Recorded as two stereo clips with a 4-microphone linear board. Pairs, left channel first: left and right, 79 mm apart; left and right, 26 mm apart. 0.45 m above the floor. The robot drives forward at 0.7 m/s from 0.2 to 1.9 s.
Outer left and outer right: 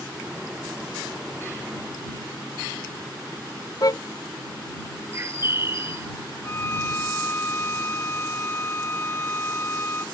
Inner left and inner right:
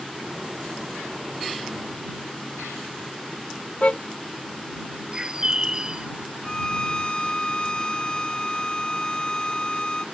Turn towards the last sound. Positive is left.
turn(degrees=35)  # may be behind; listen again after turning